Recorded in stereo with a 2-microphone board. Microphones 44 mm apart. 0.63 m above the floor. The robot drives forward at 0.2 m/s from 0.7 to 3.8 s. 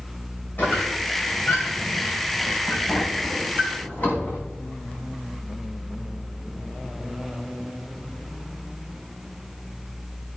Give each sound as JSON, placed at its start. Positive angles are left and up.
{"t": 0.6, "sound": "a squeak", "side_deg": 45, "distance_m": 3.0}